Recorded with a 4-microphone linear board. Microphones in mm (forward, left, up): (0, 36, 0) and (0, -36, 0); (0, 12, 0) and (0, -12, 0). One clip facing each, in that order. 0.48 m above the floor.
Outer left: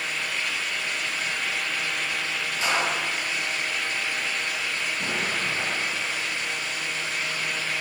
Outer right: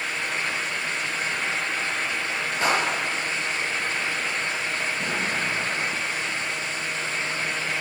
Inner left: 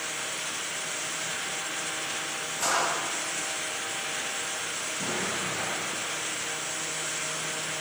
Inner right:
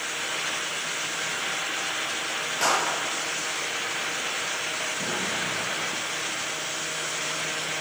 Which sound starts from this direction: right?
A clap, at 2.6 s.